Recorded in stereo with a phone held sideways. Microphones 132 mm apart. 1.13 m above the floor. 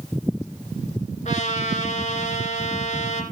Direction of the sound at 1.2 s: 55° left (ahead or behind).